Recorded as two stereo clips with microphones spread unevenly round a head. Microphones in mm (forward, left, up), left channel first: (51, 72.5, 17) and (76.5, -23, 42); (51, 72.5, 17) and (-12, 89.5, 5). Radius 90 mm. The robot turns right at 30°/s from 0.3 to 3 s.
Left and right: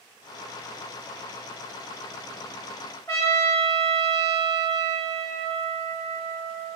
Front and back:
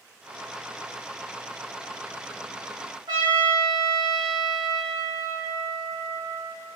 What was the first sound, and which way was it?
A trumpet, 175° right.